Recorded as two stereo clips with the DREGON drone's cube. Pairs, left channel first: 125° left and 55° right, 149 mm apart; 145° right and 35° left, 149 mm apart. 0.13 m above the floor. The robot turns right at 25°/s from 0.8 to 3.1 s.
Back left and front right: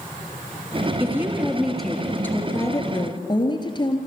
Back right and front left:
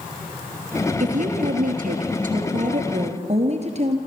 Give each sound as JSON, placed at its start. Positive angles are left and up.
{"t": 1.0, "sound": "a woman speaking", "azimuth_deg": 15, "distance_m": 3.0}